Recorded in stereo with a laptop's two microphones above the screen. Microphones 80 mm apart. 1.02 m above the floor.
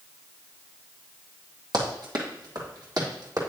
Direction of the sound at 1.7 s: 60° right (ahead or behind).